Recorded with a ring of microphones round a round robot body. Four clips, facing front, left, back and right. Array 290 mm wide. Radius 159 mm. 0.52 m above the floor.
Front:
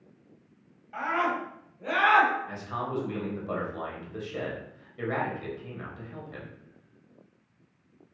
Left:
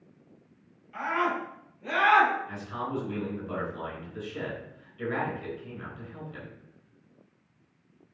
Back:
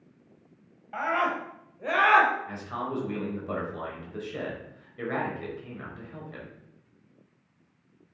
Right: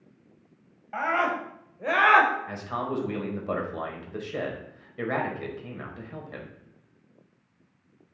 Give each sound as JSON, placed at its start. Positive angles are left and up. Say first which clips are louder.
{"t": 0.9, "sound": "a scream", "louder": "right 2 dB, back 1 dB", "azimuth_deg": -120, "distance_m": 3.5}
{"t": 2.5, "sound": "a man speaking", "louder": "right 3 dB, even", "azimuth_deg": -90, "distance_m": 3.5}